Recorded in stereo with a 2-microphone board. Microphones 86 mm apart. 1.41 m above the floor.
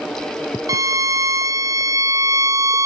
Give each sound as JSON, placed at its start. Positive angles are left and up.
{"t": 0.7, "sound": "a violin", "side_deg": -45, "distance_m": 0.9}